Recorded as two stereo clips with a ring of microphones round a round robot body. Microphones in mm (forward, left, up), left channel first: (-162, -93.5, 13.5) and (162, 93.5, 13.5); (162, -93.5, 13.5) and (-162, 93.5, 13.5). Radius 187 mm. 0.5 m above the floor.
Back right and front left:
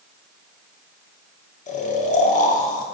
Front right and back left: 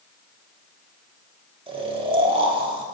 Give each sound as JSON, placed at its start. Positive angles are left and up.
{"t": 1.7, "sound": "snoring", "azimuth_deg": -165, "distance_m": 1.3}